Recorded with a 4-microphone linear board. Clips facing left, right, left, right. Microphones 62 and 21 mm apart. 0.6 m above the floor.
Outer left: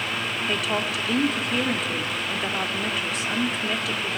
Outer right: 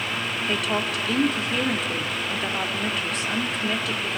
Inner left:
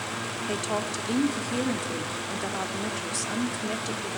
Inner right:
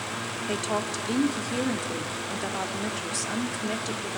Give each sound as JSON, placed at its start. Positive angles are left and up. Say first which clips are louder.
{"t": 0.5, "sound": "a woman speaking", "louder": "outer right 1 dB, inner right 1 dB", "side_deg": 0, "distance_m": 1.1}